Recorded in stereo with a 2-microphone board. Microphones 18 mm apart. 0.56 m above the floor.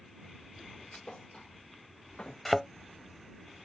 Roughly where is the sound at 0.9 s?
Left.